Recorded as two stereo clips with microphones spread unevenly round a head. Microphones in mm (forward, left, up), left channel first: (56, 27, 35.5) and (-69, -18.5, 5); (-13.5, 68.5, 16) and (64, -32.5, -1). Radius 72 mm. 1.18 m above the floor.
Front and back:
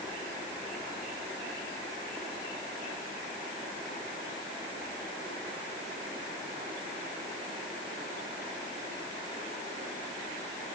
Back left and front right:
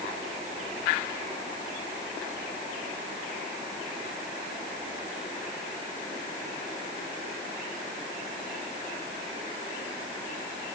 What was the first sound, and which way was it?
Only background noise.